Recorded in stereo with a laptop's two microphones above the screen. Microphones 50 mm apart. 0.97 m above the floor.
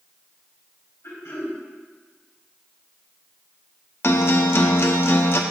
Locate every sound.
1.0 s throat clearing: 80° left, 3 m
4.0 s a guitar: 50° left (ahead or behind), 0.6 m